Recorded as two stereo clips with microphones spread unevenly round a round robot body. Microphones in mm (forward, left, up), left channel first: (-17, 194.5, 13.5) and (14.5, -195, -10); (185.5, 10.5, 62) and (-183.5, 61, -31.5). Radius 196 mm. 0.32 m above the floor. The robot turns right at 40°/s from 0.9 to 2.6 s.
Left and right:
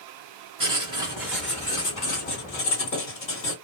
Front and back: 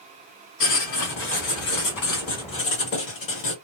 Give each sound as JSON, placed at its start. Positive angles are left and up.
{"t": 0.6, "sound": "writing", "azimuth_deg": -20, "distance_m": 1.6}